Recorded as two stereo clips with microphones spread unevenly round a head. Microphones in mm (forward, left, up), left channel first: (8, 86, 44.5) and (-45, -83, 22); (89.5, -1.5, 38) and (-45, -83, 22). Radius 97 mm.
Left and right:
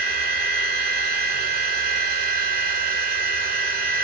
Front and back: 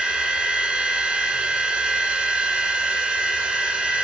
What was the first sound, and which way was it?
A machine running, 65° right.